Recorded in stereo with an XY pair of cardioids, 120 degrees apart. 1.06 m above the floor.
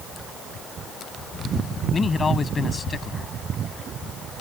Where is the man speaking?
30° left.